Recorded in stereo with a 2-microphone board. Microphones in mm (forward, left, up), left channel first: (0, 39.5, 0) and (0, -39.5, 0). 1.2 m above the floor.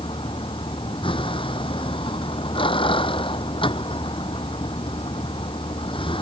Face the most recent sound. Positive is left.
turn(degrees=90)